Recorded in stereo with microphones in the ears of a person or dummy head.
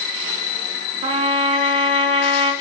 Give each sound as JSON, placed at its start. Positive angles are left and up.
{"t": 1.0, "sound": "a trumpet", "side_deg": -30, "distance_m": 4.0}